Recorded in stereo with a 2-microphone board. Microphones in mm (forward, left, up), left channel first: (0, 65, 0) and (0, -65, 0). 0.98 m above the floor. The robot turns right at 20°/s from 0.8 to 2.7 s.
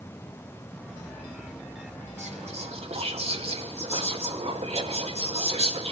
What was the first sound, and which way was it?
Whispering, 65° right (ahead or behind).